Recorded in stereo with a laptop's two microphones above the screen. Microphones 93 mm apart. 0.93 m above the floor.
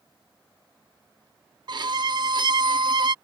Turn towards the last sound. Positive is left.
turn(degrees=-50)  # may be behind; listen again after turning